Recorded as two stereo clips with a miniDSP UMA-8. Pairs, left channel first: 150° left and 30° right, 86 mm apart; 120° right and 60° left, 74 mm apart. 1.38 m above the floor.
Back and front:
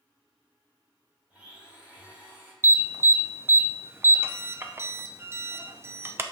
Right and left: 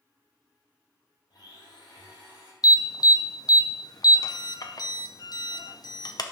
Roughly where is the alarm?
Right.